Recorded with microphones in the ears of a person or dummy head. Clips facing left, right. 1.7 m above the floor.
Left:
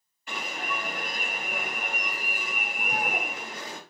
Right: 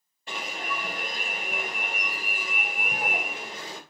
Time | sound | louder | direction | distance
0.3 | an alarm | even | 30° right (ahead or behind) | 1.5 m